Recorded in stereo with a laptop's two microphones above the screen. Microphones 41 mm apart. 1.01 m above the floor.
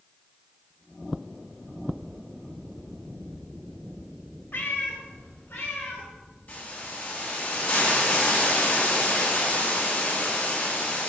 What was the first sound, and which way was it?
A cat meowing, 60° left (ahead or behind).